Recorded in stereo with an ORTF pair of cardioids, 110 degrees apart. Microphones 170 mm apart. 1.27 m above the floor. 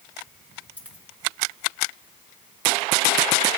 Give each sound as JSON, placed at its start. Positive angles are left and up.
{"t": 0.8, "sound": "a dropped coin", "azimuth_deg": 10, "distance_m": 4.0}